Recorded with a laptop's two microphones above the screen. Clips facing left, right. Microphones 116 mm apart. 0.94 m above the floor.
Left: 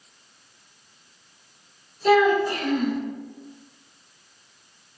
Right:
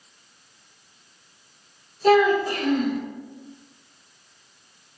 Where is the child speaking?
55° right (ahead or behind), 1.8 m.